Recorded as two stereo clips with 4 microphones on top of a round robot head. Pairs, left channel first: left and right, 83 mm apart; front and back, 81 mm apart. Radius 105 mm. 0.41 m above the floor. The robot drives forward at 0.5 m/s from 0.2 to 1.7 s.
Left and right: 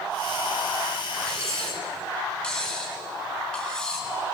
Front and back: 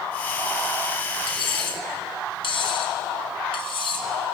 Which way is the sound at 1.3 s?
10° left.